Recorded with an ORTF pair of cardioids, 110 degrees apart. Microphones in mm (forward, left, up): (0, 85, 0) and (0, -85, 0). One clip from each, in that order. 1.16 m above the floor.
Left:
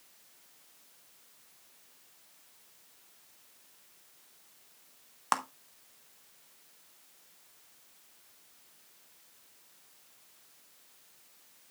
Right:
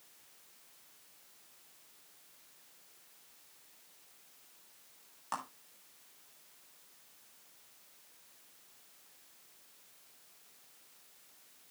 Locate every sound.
5.3 s a clap: 70° left, 1.2 m